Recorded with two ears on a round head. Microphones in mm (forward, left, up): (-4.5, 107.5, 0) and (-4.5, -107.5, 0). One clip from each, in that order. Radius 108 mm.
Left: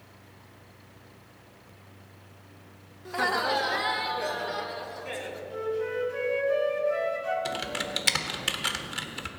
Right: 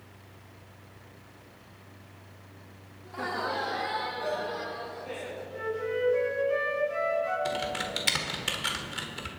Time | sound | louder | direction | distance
3.0 | laughter | left 6 dB | 60° left (ahead or behind) | 0.9 m
5.5 | a flute | left 1 dB | 25° left (ahead or behind) | 4.5 m
7.5 | typing on a keyboard | even | 10° left (ahead or behind) | 1.2 m